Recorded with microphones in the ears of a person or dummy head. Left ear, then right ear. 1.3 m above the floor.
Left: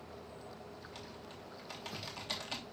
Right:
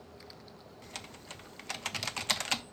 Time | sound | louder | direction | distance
0.8 | typing on a keyboard | right 3 dB | 55° right (ahead or behind) | 0.5 m